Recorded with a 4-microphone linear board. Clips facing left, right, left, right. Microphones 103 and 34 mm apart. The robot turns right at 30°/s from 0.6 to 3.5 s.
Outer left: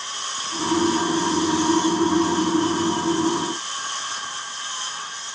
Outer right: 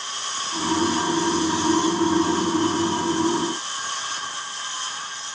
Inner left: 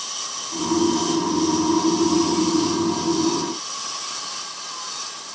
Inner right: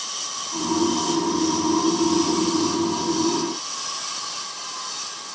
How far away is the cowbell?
No cowbell in this recording.